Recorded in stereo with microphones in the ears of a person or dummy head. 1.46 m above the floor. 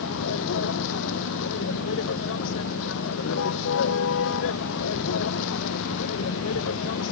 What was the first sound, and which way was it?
A vehicle, 70° left (ahead or behind).